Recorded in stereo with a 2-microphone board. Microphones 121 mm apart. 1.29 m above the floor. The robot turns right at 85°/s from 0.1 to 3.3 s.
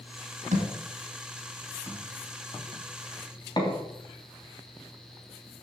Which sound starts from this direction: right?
A thud, at 0.5 s.